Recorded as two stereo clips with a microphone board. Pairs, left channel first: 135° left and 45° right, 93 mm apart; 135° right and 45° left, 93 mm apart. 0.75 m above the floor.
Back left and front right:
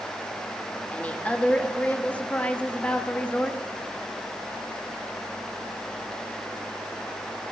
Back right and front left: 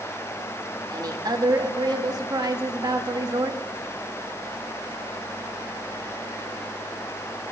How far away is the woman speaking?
About 1.3 m.